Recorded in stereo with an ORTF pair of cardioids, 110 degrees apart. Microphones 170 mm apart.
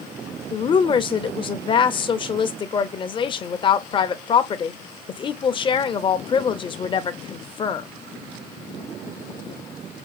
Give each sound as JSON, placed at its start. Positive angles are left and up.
{"t": 0.5, "sound": "a woman speaking", "azimuth_deg": 30, "distance_m": 0.6}